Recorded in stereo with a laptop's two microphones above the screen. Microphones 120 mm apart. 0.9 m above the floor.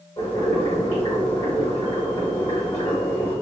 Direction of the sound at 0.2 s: 45° left (ahead or behind).